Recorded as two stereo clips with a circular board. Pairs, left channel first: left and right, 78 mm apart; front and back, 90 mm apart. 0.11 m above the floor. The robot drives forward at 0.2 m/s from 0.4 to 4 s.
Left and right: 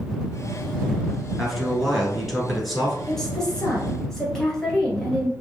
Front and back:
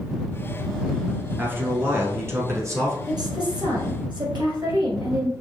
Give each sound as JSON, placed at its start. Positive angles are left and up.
{"t": 1.4, "sound": "a man speaking", "azimuth_deg": 180, "distance_m": 1.1}
{"t": 3.1, "sound": "a woman speaking", "azimuth_deg": 170, "distance_m": 1.7}